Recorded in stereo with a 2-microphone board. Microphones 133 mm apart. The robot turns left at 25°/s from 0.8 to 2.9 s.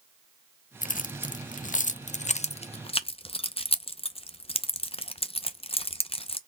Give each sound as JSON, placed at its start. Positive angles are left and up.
{"t": 0.8, "sound": "keys jangling", "side_deg": 80, "distance_m": 0.5}